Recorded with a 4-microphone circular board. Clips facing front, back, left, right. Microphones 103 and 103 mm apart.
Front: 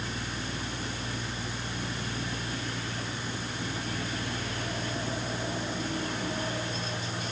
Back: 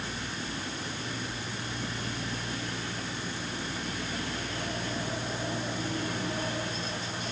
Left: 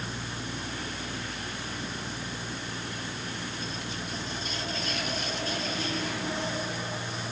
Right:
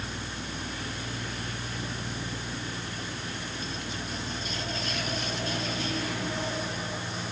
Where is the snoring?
I don't hear snoring.